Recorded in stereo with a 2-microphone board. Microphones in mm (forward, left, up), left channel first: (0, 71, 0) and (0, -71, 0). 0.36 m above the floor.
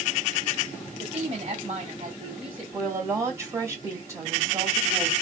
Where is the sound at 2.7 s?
20° right (ahead or behind), 1.8 m.